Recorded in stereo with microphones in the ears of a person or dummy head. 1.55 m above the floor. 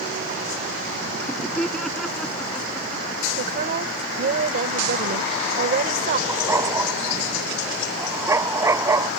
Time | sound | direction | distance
1.2 | laughter | 5° left (ahead or behind) | ?
3.4 | a woman speaking | 50° right (ahead or behind) | ?
6.3 | a dog barking | 15° right (ahead or behind) | ?